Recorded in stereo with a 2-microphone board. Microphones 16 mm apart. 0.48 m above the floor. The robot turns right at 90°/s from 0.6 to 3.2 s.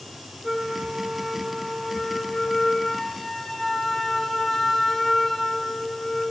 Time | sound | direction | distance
0.4 | a flute | 80° right | 2 m